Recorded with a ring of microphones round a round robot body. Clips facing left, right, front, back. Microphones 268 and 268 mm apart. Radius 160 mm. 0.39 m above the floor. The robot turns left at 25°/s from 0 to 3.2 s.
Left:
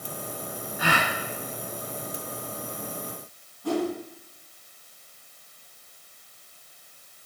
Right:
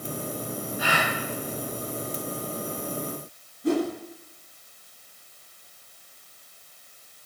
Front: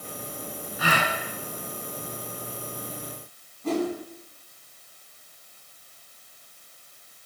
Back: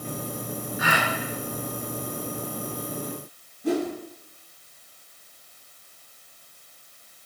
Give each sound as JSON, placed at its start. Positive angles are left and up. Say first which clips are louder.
{"t": 0.8, "sound": "a gasp", "louder": "left 2 dB, front 1 dB", "azimuth_deg": 55, "distance_m": 1.5}
{"t": 3.6, "sound": "a whoosh", "louder": "right 3 dB, back 1 dB", "azimuth_deg": -120, "distance_m": 1.5}